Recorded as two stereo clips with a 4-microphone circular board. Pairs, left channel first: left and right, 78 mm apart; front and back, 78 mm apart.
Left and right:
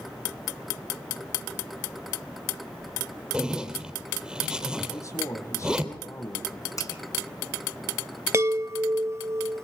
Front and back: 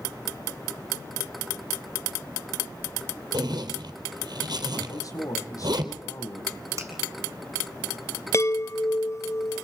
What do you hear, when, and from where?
3.3 s a zipper: 170° right, 3 m
4.9 s a man speaking: 40° left, 5 m
6.8 s a finger snap: 130° left, 4 m
8.3 s a chime: 45° right, 0.7 m